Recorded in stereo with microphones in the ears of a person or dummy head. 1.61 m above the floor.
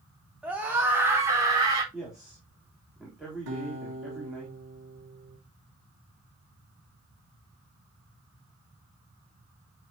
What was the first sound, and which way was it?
A scream, 5° right (ahead or behind).